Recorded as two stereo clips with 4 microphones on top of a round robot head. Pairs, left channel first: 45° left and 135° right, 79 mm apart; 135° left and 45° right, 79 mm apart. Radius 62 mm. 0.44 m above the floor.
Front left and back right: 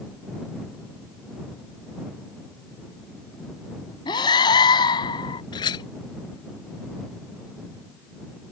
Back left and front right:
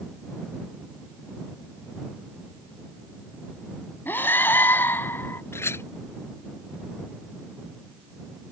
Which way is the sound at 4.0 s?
70° left.